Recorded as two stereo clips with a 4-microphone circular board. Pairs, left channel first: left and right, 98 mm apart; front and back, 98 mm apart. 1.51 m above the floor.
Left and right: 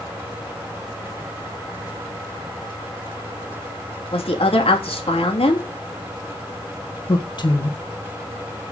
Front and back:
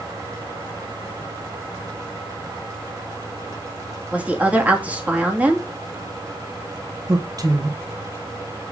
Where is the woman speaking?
105° left, 2.5 m.